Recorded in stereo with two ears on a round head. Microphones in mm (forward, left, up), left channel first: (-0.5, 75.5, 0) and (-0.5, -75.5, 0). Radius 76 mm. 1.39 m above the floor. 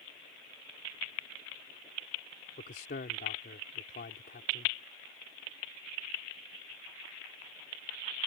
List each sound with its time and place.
2.6 s a man speaking: 55° left (ahead or behind)